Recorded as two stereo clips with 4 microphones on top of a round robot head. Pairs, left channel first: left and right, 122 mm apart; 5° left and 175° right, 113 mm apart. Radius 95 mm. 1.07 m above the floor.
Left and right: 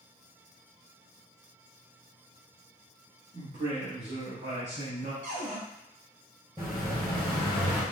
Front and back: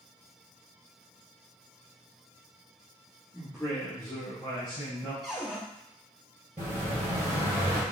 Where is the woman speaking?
90° right, 1.4 m; by 5.1 s 60° right, 3 m.